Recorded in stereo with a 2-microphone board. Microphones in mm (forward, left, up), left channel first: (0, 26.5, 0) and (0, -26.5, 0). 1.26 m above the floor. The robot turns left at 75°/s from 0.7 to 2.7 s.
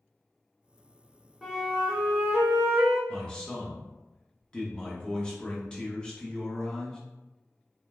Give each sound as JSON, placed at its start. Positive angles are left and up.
{"t": 1.4, "sound": "a flute", "azimuth_deg": 0, "distance_m": 0.8}
{"t": 3.1, "sound": "a man speaking", "side_deg": 15, "distance_m": 0.8}